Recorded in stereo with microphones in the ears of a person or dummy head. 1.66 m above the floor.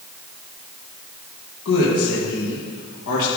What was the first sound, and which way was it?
A woman speaking, 70° left (ahead or behind).